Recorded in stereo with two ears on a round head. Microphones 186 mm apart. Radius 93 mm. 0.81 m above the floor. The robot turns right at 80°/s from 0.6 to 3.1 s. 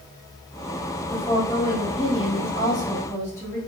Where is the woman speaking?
Straight ahead, 1.4 m; by 3.6 s 160° left, 1.4 m.